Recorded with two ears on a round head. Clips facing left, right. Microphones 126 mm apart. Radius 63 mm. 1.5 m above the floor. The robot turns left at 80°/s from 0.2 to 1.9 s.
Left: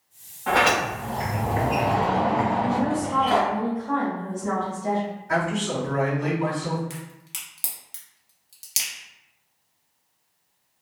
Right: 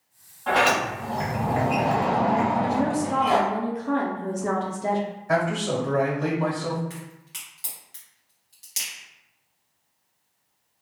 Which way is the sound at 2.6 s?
65° right (ahead or behind).